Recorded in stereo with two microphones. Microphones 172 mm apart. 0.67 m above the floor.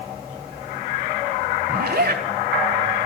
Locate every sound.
1.7 s a zipper: 65° right (ahead or behind), 1.0 m